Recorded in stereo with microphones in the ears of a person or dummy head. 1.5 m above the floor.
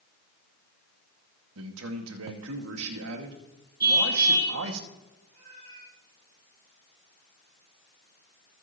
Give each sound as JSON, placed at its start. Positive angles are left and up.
{"t": 1.6, "sound": "a man speaking", "side_deg": -75, "distance_m": 2.0}
{"t": 3.8, "sound": "a car horn", "side_deg": -20, "distance_m": 6.5}
{"t": 5.3, "sound": "a cat meowing", "side_deg": -50, "distance_m": 9.0}